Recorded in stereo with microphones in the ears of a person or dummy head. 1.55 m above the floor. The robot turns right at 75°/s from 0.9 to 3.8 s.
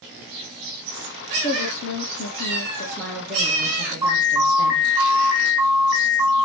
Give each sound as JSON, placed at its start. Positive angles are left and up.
{"t": 1.4, "sound": "a woman speaking", "azimuth_deg": 45, "distance_m": 0.9}
{"t": 4.0, "sound": "an alarm", "side_deg": -10, "distance_m": 1.7}